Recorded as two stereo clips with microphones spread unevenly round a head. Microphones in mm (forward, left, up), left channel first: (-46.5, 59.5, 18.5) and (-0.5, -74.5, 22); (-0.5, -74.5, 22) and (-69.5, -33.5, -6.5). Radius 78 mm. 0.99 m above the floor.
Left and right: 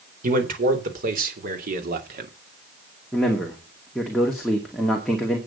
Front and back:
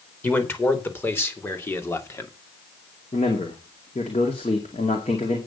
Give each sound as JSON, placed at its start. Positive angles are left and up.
{"t": 0.2, "sound": "a man speaking", "azimuth_deg": -100, "distance_m": 4.0}
{"t": 3.1, "sound": "a man speaking", "azimuth_deg": 20, "distance_m": 2.5}